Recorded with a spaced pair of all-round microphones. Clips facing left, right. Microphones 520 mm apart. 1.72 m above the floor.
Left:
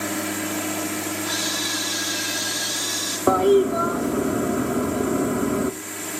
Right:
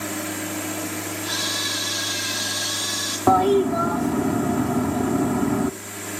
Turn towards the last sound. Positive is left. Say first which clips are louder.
# left 2 dB
turn(degrees=-15)  # may be behind; listen again after turning